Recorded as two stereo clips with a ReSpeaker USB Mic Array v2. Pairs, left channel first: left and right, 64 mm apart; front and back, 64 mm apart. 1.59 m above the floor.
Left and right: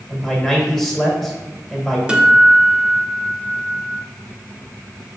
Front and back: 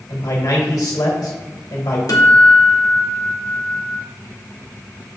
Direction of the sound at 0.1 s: 5° left.